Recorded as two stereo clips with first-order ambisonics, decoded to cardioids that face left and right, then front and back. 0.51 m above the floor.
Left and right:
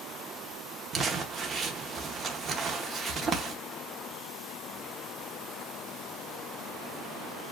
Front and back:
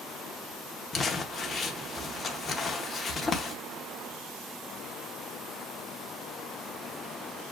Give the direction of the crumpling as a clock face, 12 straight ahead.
2 o'clock.